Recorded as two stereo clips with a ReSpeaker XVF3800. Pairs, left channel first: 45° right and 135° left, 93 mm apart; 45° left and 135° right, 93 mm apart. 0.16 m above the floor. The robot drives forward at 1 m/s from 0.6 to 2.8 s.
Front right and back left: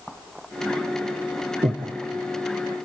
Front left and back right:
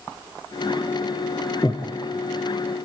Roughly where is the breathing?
Left.